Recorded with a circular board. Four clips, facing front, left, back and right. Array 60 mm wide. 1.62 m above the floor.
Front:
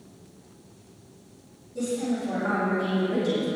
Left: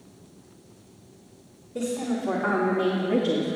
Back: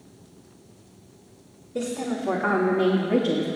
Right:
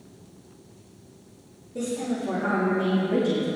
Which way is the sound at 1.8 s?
165° left.